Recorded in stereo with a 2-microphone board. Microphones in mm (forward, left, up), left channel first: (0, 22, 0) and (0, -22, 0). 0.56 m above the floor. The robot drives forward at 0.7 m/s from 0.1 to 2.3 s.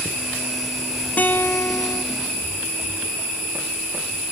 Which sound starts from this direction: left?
A guitar, at 1.2 s.